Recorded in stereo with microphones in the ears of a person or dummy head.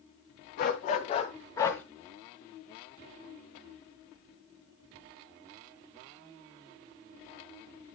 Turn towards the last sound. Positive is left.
turn(degrees=5)  # may be behind; listen again after turning